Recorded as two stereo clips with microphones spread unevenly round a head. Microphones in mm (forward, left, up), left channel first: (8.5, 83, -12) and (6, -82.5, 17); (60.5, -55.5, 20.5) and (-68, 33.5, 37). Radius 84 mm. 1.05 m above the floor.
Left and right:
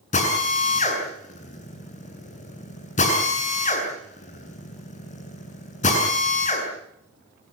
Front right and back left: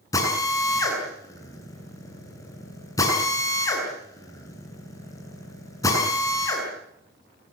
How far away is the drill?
About 8 m.